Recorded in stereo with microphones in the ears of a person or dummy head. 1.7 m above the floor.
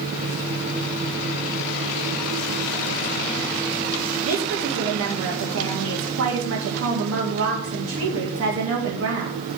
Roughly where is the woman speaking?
Right.